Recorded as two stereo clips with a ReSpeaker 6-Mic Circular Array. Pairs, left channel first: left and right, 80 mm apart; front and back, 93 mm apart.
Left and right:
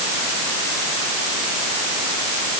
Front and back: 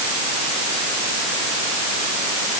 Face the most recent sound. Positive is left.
No sound to turn to.